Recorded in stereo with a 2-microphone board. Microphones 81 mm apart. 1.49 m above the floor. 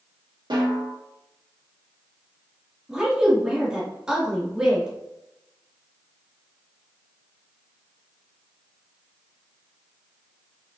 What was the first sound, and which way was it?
A snare drum, 75° right (ahead or behind).